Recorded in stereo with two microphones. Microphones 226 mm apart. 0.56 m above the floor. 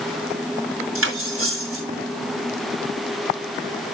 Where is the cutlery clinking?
65° right (ahead or behind), 3.5 m.